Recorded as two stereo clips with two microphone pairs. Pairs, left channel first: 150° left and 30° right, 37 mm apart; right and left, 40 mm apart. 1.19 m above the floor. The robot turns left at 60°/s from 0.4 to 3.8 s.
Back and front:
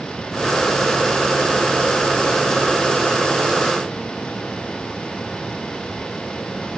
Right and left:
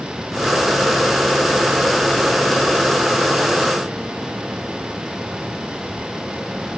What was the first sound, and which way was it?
Only background noise.